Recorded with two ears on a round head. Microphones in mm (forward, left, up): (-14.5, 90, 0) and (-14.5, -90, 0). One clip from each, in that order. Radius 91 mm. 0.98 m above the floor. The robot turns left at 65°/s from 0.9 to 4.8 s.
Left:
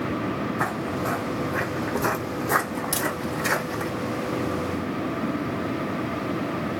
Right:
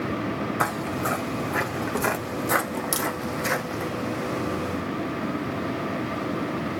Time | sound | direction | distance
0.6 | footsteps | 45° right (ahead or behind) | 1.3 m
2.9 | a crack | 25° right (ahead or behind) | 1.8 m